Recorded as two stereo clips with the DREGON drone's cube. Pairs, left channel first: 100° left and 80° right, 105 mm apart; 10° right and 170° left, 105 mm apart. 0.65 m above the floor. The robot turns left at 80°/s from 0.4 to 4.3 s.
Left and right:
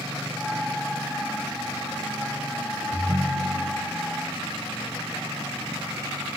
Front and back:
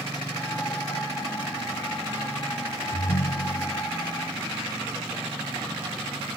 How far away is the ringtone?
About 4 m.